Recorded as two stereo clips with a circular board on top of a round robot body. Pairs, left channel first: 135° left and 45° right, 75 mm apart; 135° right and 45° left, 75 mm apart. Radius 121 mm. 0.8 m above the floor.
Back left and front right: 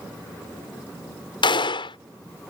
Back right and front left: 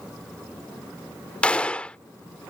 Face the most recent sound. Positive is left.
turn(degrees=150)